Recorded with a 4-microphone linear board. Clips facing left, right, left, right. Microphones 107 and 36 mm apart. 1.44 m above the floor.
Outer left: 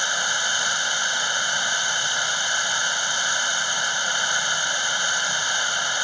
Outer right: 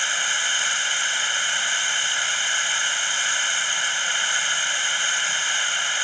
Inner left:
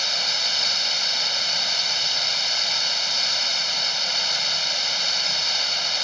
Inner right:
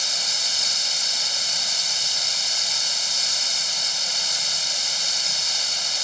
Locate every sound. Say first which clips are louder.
0.0 s running water: outer left 2 dB, inner left 2 dB; 20° left (ahead or behind)